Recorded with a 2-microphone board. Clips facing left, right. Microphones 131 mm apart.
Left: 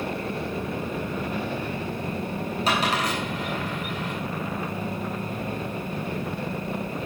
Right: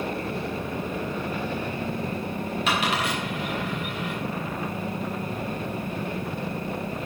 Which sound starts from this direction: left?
A dropped coin, at 2.7 s.